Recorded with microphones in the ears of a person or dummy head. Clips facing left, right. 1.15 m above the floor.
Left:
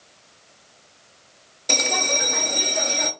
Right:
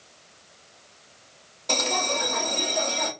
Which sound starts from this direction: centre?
A bell, at 1.7 s.